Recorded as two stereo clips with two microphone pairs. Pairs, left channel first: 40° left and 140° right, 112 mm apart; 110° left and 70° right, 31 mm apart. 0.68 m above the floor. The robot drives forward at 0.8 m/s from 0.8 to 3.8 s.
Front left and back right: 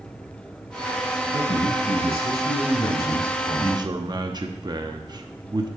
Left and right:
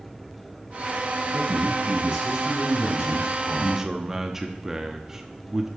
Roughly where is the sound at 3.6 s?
Behind right.